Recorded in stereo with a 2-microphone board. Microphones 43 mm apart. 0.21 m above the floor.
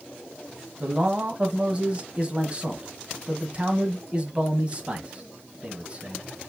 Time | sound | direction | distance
0.8 | a man speaking | 25° right (ahead or behind) | 1.1 m